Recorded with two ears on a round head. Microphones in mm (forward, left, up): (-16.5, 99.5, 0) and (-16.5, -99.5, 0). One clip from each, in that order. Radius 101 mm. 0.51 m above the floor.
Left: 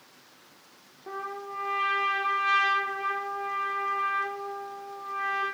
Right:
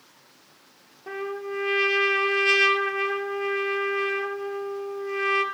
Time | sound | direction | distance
1.1 | a trumpet | 80° right | 3 m